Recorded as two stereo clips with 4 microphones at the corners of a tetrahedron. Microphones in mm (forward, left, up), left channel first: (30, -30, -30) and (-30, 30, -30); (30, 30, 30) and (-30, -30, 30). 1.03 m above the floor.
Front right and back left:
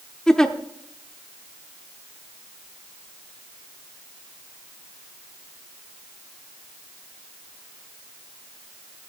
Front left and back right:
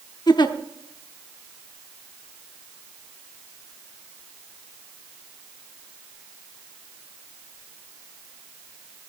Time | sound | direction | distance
0.3 | a giggle | 35° left | 0.8 m